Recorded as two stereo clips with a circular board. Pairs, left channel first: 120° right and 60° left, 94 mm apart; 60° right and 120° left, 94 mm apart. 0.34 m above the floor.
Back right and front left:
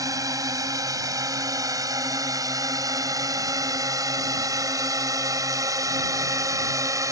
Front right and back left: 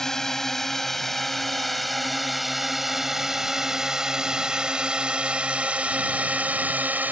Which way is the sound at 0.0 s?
25° left.